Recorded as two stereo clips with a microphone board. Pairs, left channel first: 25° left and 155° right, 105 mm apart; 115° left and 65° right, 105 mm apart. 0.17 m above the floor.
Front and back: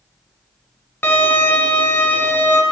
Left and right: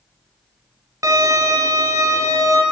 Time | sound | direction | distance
1.0 | a violin | 35° right | 1.1 m